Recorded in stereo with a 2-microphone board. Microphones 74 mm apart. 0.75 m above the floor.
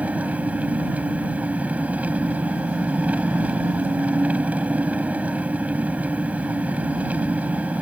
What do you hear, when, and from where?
0.0 s an engine running: 20° right (ahead or behind)